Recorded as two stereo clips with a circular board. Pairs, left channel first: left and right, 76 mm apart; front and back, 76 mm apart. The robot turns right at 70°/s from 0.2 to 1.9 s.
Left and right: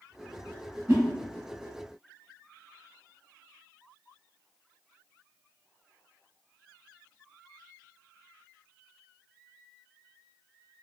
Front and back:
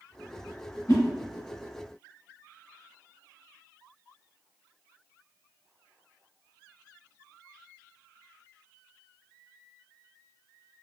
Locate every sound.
0.9 s a whoosh: 35° right, 1.2 m; by 1.0 s 25° right, 1.2 m